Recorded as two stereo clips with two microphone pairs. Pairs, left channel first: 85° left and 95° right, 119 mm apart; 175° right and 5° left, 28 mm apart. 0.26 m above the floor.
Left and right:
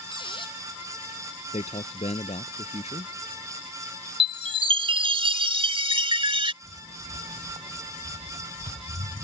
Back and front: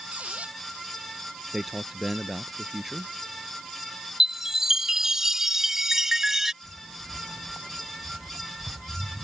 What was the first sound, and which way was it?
A squeak, 40° left.